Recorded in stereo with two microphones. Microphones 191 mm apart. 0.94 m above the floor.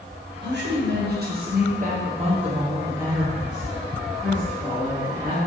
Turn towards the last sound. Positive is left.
turn(degrees=15)  # may be behind; listen again after turning